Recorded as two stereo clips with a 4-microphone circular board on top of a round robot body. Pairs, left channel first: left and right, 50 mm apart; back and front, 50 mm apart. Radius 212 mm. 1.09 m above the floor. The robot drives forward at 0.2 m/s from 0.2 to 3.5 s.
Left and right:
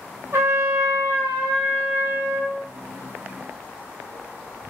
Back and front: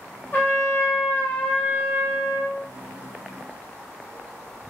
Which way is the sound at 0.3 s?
125° right.